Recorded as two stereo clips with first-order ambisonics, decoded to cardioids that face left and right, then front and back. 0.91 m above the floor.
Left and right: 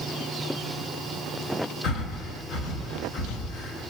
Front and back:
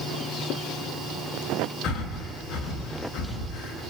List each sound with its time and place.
1.8 s breathing: 50° left, 5.5 m